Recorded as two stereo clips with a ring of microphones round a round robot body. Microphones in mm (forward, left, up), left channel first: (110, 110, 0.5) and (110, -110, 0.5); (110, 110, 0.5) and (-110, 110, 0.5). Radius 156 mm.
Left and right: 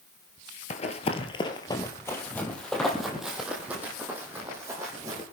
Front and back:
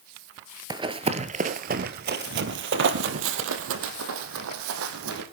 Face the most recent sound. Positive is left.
turn(degrees=-170)